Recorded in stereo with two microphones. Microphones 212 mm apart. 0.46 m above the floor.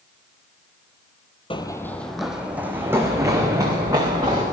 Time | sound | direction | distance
1.5 | running footsteps | 25° left (ahead or behind) | 0.9 m